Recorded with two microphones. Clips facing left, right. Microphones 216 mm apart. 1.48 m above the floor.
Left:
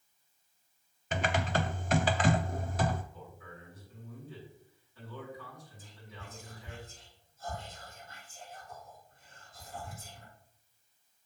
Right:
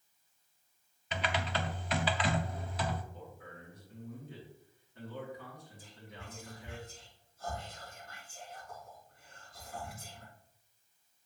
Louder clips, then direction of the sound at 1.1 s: Left 4 dB; 45° left (ahead or behind).